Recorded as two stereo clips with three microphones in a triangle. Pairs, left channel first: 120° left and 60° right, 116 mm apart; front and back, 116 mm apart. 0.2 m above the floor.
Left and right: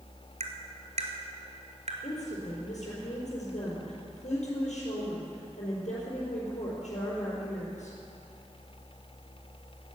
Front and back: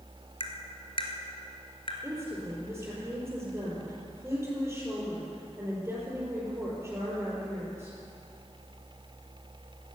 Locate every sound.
0.4 s tapping: 40° right, 1.6 m
2.0 s a woman speaking: 110° left, 4.5 m